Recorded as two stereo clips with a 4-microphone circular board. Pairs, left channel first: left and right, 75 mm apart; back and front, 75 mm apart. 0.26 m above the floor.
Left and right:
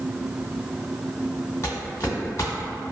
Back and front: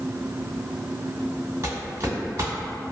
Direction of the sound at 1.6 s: 40° left.